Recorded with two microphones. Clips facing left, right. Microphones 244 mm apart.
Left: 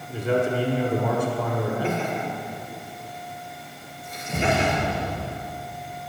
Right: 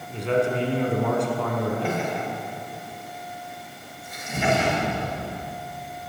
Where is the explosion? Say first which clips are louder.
Even; 35° left (ahead or behind), 3 m.